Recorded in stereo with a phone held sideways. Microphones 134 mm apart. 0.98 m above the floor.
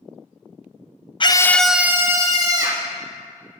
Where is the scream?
40° left (ahead or behind), 0.6 m; by 2.9 s 30° right (ahead or behind), 2 m.